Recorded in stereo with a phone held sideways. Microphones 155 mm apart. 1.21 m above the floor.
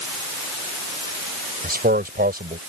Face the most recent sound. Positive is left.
turn(degrees=-75)  # may be behind; listen again after turning